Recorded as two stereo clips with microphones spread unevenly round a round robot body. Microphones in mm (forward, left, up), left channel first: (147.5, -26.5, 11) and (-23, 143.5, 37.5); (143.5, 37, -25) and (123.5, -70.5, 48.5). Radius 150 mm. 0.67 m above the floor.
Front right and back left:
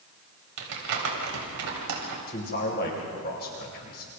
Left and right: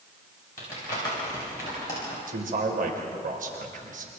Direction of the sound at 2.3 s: 100° right.